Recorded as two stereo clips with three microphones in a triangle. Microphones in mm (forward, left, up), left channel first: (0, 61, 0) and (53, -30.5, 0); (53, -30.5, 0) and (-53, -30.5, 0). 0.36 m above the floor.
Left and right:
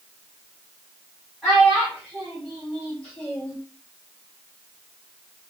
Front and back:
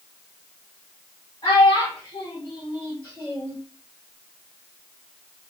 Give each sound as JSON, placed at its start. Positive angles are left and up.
{"t": 1.4, "sound": "a child speaking", "azimuth_deg": 30, "distance_m": 2.5}